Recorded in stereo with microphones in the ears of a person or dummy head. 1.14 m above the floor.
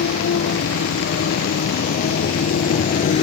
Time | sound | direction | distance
0.0 | a motorcycle | 55° left (ahead or behind) | ?